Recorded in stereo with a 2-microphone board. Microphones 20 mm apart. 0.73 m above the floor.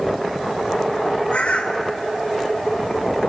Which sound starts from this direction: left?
A bird, at 1.3 s.